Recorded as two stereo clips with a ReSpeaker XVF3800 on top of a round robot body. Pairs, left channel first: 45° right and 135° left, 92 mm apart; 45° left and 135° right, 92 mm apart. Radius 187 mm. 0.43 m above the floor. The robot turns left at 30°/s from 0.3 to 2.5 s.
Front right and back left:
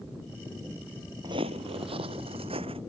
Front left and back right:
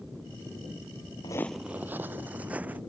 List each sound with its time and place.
1.2 s footsteps: 85° left; by 2.8 s 150° left